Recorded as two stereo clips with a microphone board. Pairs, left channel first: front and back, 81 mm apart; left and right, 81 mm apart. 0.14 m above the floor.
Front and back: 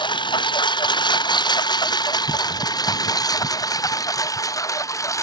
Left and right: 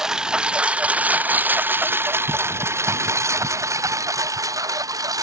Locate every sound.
0.0 s a lawn mower: 5° right; by 5.2 s 50° right